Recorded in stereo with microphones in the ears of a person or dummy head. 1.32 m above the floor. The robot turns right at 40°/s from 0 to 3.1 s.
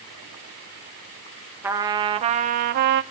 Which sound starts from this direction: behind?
A trumpet, at 1.6 s.